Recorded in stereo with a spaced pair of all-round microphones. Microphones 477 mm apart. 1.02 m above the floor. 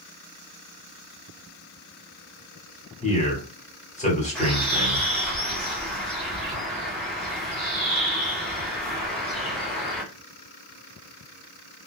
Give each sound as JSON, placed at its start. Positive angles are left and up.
{"t": 3.0, "sound": "a man speaking", "side_deg": 15, "distance_m": 1.2}
{"t": 4.3, "sound": "a bird", "side_deg": 0, "distance_m": 0.9}